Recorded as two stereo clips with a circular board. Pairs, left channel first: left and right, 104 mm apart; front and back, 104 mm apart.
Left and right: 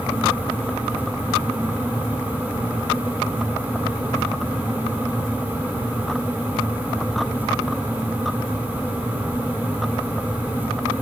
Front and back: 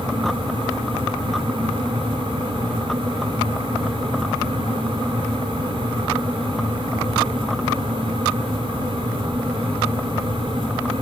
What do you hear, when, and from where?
Only background noise.